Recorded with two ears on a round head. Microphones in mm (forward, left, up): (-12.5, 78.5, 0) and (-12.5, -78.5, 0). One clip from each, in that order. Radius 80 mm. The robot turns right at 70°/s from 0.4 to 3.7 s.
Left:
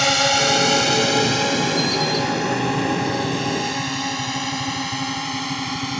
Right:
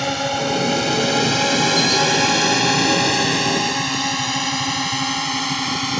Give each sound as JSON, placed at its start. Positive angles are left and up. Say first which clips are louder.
{"t": 0.0, "sound": "a drone", "louder": "left 4 dB", "side_deg": 55}